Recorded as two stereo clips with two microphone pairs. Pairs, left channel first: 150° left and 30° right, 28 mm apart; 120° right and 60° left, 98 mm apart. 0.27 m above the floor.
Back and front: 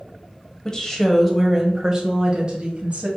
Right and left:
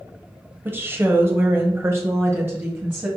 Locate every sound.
0.7 s a woman speaking: 105° left, 1.0 m; by 3.1 s 5° right, 1.3 m